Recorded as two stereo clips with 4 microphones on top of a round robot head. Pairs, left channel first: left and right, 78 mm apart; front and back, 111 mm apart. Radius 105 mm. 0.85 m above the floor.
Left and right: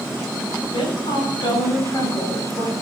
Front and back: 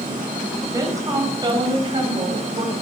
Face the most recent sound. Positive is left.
turn(degrees=150)